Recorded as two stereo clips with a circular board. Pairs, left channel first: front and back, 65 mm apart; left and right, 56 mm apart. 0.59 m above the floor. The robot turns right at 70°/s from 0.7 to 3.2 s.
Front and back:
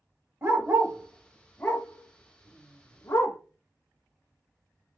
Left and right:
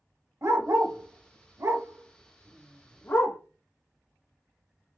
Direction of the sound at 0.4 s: 125° right.